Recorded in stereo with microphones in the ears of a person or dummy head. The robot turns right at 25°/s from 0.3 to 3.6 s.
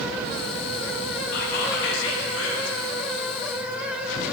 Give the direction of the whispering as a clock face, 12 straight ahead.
10 o'clock.